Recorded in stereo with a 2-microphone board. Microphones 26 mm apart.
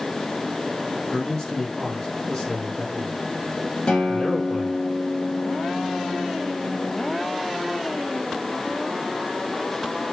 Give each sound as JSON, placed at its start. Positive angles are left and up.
{"t": 1.1, "sound": "a man speaking", "side_deg": 30, "distance_m": 4.5}
{"t": 3.9, "sound": "a guitar", "side_deg": 50, "distance_m": 3.5}